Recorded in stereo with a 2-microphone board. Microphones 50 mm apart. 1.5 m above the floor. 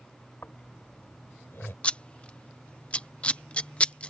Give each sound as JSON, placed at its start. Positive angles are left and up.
{"t": 0.4, "sound": "snoring", "side_deg": 45}
{"t": 1.8, "sound": "scissors", "side_deg": 20}